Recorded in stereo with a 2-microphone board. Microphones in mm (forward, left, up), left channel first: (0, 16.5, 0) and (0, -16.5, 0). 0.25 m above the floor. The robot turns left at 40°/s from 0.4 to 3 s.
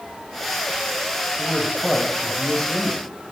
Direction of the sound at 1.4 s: 10° left (ahead or behind).